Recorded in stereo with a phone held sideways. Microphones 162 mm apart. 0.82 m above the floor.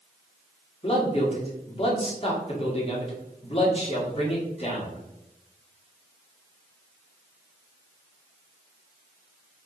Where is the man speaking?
40° left (ahead or behind), 1.6 m.